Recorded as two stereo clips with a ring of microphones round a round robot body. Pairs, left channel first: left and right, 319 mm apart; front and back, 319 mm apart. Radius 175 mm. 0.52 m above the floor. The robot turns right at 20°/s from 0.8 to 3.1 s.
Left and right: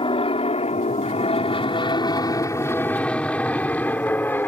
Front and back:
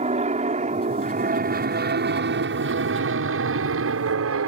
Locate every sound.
0.0 s an aircraft: 140° left; by 4.5 s 170° left